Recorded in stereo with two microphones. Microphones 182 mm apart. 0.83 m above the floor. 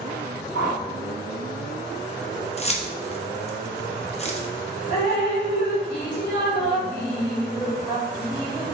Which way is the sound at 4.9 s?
70° left (ahead or behind).